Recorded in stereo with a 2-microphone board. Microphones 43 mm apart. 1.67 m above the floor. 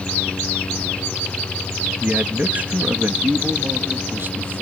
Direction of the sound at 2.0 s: 35° right (ahead or behind).